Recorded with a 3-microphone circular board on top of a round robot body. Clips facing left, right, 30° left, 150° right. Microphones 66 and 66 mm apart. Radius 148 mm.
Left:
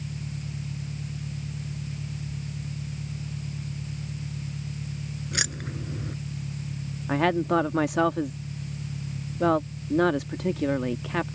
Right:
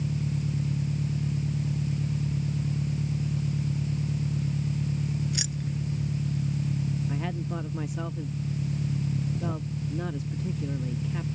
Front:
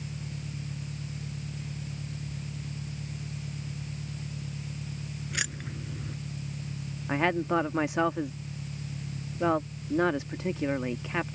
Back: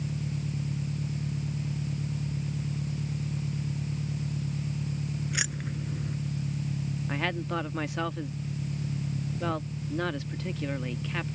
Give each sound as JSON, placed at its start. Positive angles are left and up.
{"t": 0.0, "sound": "an engine running", "azimuth_deg": -90}
{"t": 5.3, "sound": "keys jangling", "azimuth_deg": 125}
{"t": 7.1, "sound": "a woman speaking", "azimuth_deg": 100}